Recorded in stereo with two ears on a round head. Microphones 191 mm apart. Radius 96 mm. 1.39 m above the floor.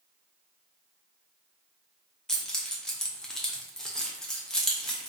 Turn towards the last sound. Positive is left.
turn(degrees=5)  # may be behind; listen again after turning